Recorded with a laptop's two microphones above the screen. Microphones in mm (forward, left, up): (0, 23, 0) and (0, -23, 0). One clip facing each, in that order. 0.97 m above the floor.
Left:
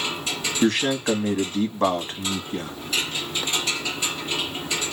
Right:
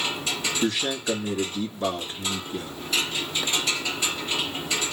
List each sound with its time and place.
0.6 s a man speaking: 55° left (ahead or behind), 1.5 m